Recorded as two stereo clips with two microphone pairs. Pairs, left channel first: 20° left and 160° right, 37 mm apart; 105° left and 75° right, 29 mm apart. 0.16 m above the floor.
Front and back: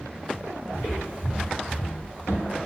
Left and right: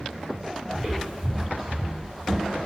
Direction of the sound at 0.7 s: 25° left.